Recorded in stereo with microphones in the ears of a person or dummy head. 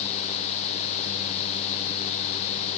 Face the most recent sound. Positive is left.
No sound to turn to.